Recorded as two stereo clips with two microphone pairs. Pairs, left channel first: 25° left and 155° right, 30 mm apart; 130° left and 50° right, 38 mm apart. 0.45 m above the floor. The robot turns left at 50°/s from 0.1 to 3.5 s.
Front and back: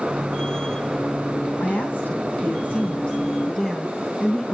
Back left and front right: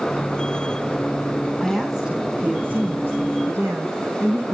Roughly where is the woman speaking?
Ahead left.